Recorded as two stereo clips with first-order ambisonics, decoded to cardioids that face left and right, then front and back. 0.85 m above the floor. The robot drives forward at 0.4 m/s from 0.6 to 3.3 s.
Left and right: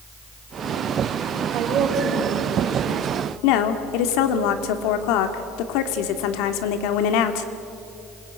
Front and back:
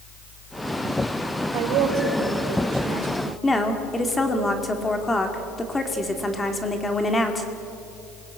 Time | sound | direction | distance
1.5 | a woman speaking | 145° right | 3.5 m
3.4 | a woman speaking | 80° left | 2 m